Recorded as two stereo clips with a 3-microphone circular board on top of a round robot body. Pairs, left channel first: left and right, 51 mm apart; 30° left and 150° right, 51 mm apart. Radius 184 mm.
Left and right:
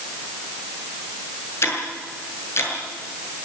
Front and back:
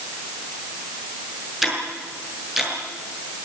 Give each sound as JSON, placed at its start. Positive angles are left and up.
{"t": 1.6, "sound": "ticking", "azimuth_deg": 125, "distance_m": 8.0}